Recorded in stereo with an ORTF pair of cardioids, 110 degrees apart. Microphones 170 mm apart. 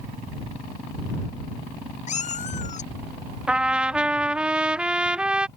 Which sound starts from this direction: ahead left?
A cat meowing, at 2.1 s.